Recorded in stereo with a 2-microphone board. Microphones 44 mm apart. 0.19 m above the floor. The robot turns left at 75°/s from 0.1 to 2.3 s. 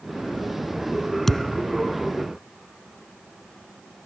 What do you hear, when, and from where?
1.3 s a thud: 5° left (ahead or behind); by 1.7 s 35° left (ahead or behind)